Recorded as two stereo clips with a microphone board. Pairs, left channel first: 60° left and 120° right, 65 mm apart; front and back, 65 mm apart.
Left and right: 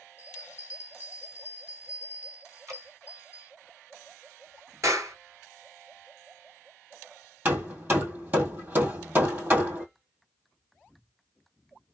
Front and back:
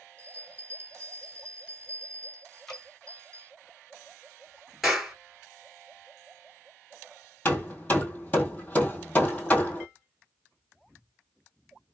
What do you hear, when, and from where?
0.2 s a bell: 65° right, 2.5 m
2.7 s dripping: 85° right, 2 m
4.8 s a clap: 95° right, 2 m
7.5 s hammering: 65° right, 1.9 m